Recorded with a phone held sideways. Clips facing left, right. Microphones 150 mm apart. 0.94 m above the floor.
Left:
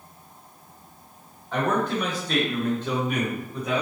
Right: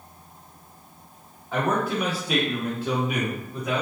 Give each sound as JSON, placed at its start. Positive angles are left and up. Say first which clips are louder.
{"t": 1.5, "sound": "a man speaking", "louder": "even", "side_deg": -5, "distance_m": 1.3}